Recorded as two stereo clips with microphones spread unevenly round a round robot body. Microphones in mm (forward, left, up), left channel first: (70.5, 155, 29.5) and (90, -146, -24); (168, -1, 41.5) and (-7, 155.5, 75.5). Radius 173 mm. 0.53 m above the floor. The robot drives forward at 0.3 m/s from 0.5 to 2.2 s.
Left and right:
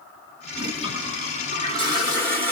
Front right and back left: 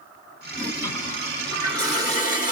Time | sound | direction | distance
0.5 | a toilet flushing | 130° right | 1.6 m